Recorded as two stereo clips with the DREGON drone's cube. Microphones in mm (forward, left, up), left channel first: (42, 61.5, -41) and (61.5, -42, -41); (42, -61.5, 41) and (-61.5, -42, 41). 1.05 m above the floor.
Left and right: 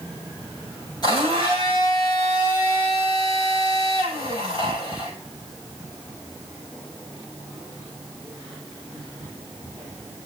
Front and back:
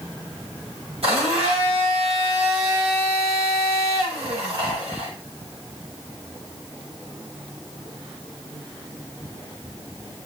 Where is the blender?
145° left, 7 m.